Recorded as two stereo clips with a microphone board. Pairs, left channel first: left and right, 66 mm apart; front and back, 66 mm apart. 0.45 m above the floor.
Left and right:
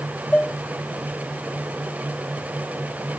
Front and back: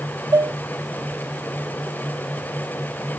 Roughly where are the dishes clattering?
Behind.